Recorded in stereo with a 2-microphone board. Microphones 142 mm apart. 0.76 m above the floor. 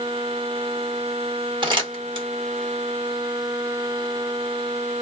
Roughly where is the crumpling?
Right.